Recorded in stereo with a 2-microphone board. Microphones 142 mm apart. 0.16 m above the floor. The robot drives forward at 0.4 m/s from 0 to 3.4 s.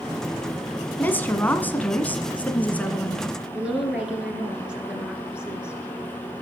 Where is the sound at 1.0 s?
15° left (ahead or behind), 1.4 m; by 3.2 s 10° left (ahead or behind), 2.0 m.